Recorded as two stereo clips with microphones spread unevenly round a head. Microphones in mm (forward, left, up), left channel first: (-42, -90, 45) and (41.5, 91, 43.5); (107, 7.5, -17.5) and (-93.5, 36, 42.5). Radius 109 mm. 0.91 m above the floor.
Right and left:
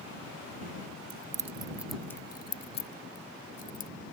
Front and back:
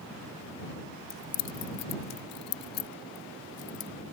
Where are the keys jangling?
30° left; by 3.9 s 65° right.